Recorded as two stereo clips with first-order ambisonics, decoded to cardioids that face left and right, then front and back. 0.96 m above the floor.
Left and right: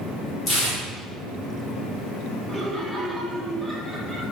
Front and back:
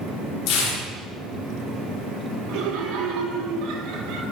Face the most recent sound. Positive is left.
turn(degrees=180)